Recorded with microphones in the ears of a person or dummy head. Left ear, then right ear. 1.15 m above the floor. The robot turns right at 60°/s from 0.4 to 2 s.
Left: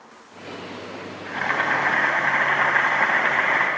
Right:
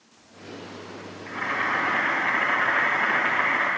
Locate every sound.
1.3 s boiling: 55° left, 2.5 m; by 3.7 s 95° left, 2.5 m